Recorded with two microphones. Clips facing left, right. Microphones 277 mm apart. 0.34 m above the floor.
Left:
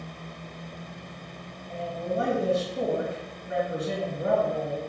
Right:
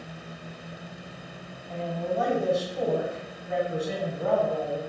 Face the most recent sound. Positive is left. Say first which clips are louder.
# right 1 dB
turn(degrees=25)  # may be behind; listen again after turning